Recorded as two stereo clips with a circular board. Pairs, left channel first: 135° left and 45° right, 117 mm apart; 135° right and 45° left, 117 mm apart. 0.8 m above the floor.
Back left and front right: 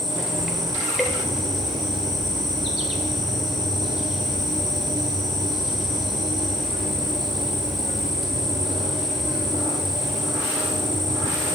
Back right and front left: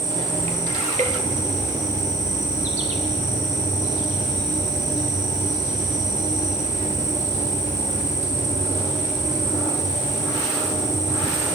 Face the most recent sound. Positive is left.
turn(degrees=45)